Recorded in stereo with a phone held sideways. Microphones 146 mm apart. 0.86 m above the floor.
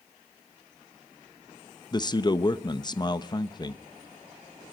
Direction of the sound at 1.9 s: 30° left (ahead or behind).